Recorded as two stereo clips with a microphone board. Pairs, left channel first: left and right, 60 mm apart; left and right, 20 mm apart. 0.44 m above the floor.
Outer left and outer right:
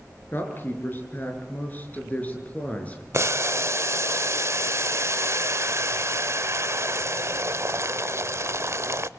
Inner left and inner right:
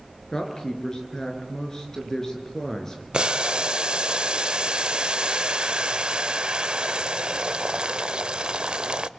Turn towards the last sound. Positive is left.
turn(degrees=-50)  # may be behind; listen again after turning